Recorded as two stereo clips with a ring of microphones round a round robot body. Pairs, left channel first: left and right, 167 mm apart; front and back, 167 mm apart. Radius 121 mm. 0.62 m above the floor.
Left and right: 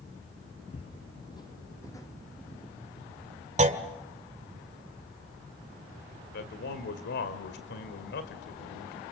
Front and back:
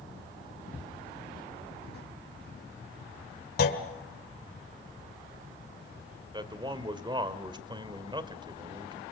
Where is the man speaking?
120° left, 2 m.